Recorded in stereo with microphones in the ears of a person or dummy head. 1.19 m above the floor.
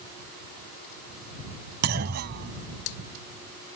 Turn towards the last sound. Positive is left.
turn(degrees=-50)  # may be behind; listen again after turning